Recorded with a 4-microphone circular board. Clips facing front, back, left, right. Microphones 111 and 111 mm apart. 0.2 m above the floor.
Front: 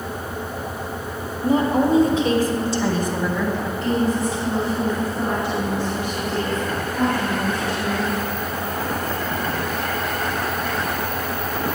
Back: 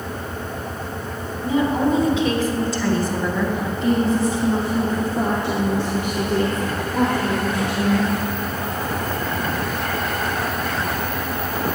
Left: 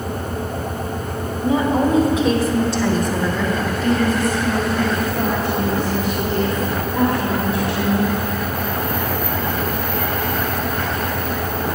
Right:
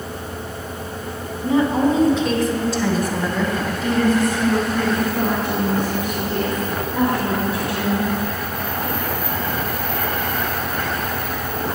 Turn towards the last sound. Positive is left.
turn(degrees=-160)